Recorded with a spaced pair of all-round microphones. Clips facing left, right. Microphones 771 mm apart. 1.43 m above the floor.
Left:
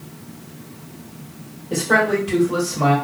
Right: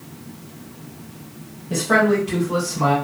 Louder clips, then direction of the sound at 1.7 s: Right 1 dB; 40° right (ahead or behind).